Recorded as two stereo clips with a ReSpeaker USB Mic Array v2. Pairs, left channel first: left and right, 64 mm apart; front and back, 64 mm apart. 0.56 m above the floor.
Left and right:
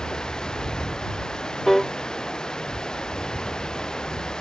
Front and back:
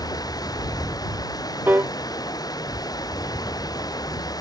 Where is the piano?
170° left.